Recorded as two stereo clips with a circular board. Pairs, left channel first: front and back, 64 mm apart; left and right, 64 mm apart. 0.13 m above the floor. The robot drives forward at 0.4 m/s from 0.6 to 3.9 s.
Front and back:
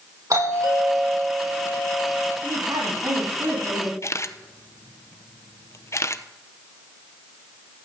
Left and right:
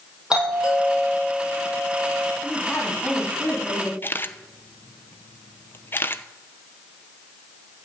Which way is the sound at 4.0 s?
35° left.